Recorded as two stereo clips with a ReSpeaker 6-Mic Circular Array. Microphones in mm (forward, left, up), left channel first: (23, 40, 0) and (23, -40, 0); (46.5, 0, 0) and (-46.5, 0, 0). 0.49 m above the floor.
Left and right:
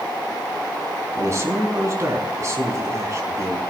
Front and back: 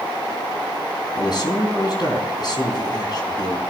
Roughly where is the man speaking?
Ahead right.